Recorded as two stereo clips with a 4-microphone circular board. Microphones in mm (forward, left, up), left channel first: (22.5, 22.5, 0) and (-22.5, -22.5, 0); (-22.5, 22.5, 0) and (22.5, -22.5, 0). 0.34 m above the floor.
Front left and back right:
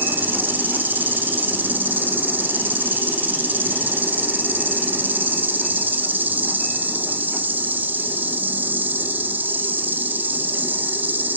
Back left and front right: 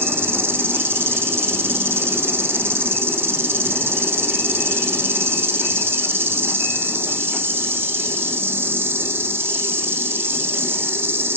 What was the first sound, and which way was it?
An insect, 85° right.